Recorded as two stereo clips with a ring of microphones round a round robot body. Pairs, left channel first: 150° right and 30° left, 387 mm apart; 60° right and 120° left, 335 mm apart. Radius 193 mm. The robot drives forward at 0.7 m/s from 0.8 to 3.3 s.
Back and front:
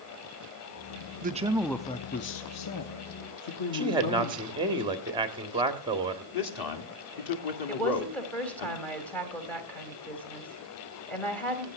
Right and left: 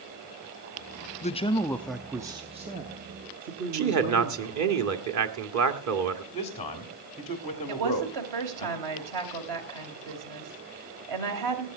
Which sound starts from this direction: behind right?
A man speaking, at 6.3 s.